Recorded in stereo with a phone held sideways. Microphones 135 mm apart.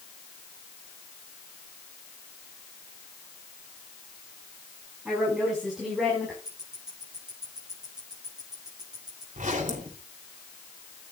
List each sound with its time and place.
5.0 s a woman speaking: 10° right (ahead or behind), 5.5 m; by 6.3 s centre (ahead or behind), 4.5 m
6.5 s ticking: 5° right (ahead or behind), 7.5 m
9.3 s a zipper: 70° right (ahead or behind), 3 m